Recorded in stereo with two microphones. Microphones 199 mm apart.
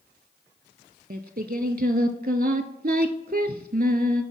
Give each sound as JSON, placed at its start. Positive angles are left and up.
{"t": 1.1, "sound": "singing", "side_deg": -55, "distance_m": 0.5}